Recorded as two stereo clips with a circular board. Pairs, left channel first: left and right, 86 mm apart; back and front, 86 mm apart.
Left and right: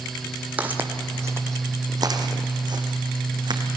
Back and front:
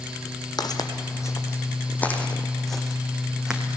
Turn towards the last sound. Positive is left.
turn(degrees=-80)